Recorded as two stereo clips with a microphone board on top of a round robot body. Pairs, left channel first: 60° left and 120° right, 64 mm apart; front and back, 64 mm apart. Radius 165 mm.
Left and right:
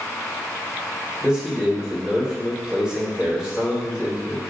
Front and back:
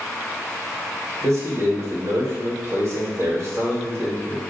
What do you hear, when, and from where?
1.2 s a man speaking: 165° left, 1.9 m